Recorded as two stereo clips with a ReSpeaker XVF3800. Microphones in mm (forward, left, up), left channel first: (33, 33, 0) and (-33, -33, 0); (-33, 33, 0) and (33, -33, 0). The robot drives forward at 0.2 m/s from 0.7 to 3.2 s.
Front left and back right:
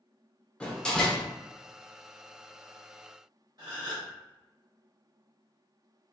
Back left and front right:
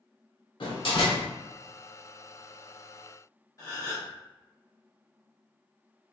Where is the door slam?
125° left, 1.1 m; by 1.3 s 130° left, 1.1 m.